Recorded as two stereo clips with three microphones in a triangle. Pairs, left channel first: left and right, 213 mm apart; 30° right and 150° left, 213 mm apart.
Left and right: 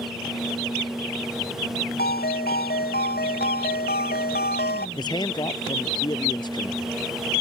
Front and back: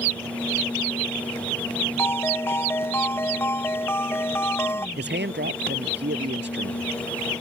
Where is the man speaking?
155° left.